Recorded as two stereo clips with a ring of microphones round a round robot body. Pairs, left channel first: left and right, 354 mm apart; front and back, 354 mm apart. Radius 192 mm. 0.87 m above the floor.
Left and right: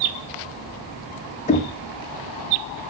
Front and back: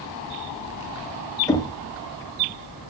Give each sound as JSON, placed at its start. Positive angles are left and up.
{"t": 1.5, "sound": "knocking", "azimuth_deg": 65, "distance_m": 0.6}